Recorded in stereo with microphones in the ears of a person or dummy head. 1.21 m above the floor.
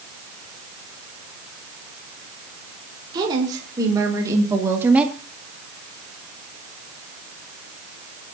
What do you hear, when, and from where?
3.1 s a woman speaking: 20° right (ahead or behind), 4.5 m; by 5.2 s centre (ahead or behind), 1.9 m